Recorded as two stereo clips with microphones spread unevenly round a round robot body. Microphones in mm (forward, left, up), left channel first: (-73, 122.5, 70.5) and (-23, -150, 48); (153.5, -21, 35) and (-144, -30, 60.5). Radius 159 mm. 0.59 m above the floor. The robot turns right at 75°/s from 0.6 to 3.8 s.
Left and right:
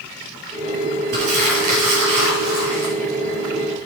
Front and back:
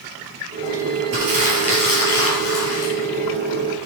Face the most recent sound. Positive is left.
turn(degrees=65)